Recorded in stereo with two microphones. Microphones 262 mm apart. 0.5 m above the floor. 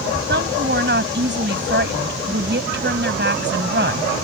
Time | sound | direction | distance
0.3 | a woman speaking | 40° right (ahead or behind) | ?